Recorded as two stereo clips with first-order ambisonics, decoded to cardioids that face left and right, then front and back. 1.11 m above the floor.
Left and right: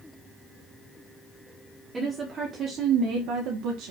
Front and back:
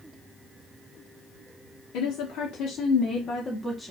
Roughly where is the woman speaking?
Ahead.